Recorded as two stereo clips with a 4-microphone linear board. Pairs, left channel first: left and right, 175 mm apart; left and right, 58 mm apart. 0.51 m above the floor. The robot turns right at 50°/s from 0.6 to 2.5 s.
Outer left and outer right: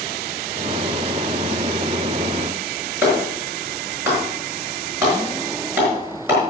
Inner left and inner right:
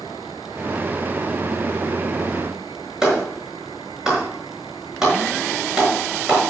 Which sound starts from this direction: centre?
A clap, at 3.0 s.